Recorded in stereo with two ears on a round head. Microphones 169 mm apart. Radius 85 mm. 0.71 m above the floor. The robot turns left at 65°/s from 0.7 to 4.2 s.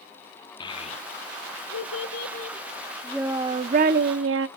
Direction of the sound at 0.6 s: 25° left (ahead or behind).